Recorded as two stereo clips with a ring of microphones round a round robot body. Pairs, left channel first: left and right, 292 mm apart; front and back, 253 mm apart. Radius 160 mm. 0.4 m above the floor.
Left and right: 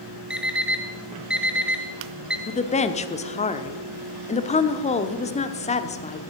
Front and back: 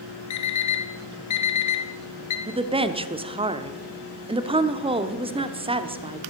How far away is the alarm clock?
About 1.2 m.